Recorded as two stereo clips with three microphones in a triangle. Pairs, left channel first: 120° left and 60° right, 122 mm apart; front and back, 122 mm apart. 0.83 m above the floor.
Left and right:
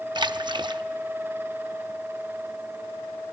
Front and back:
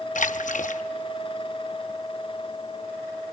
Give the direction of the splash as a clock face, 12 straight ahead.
12 o'clock.